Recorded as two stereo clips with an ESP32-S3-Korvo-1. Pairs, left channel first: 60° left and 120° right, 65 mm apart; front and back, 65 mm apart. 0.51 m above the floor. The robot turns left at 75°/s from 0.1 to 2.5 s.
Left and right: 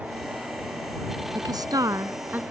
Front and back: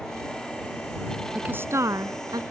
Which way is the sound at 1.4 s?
105° right.